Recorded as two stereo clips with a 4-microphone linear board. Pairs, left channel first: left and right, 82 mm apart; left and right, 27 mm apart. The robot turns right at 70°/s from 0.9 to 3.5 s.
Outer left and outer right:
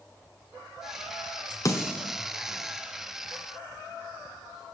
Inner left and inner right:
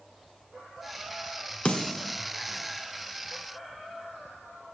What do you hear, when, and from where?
1.6 s a snare drum: 45° left (ahead or behind), 1.8 m; by 2.2 s 10° left (ahead or behind), 1.8 m